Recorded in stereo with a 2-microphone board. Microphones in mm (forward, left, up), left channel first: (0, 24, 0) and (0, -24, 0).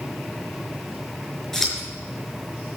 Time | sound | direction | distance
1.5 | scissors | 10° left (ahead or behind) | 5 m